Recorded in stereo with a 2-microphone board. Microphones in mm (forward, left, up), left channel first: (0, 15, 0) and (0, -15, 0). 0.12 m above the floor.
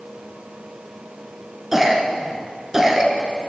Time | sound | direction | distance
1.7 | a cough | 10° right (ahead or behind) | 1.3 m